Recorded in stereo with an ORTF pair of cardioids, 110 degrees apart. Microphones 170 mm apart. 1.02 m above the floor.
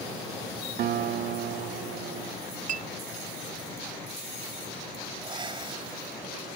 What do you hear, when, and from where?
0.8 s a guitar: 70° right
2.7 s a clink: 50° right
5.2 s breathing: 30° right